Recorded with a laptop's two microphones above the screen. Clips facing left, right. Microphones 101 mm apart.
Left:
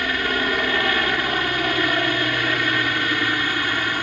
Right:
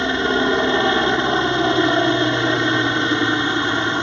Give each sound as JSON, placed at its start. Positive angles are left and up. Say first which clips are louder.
{"t": 0.0, "sound": "a helicopter", "louder": "right 5 dB", "side_deg": -25}